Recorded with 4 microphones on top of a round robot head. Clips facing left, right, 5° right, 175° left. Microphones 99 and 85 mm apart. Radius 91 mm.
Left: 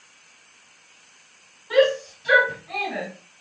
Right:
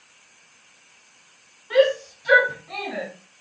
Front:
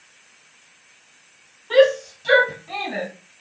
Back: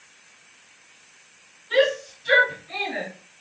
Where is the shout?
5° left, 4 m; by 3.1 s 5° right, 4 m.